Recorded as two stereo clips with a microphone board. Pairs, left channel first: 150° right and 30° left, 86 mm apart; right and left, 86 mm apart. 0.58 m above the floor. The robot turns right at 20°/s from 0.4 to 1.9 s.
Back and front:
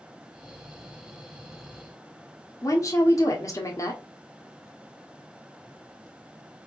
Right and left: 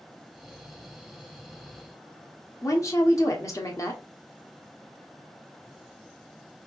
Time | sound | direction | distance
2.6 | a woman speaking | 120° right | 1.0 m